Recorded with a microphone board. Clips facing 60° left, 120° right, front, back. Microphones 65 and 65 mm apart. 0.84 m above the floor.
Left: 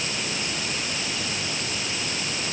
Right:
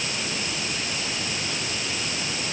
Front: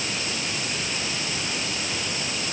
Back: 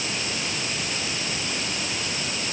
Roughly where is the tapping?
I don't hear tapping.